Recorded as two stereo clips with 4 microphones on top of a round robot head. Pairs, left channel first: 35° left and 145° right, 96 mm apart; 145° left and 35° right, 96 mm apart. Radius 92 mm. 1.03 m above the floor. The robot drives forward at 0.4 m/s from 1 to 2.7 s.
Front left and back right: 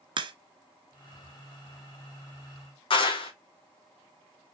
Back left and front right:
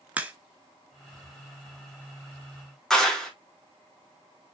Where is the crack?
115° right, 0.8 m.